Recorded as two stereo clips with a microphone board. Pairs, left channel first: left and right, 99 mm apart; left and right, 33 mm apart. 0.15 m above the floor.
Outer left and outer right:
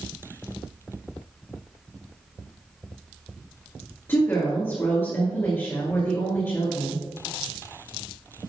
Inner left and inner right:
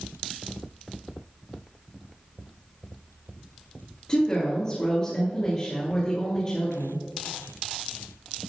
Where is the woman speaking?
25° left (ahead or behind), 2 m.